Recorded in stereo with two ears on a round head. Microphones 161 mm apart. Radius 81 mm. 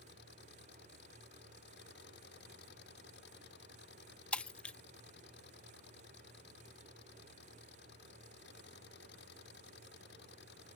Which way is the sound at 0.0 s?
70° left (ahead or behind).